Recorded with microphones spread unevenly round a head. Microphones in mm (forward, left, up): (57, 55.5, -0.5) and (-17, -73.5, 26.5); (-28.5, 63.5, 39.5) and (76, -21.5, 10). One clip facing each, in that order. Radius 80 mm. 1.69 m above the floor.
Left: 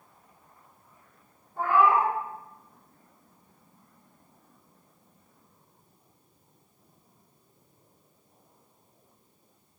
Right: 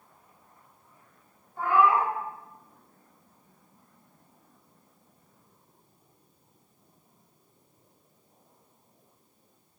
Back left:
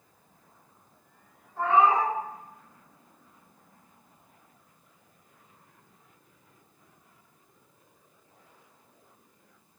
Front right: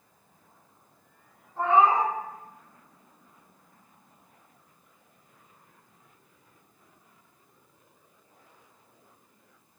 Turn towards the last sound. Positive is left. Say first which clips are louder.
# left 1 dB, front right 1 dB
turn(degrees=35)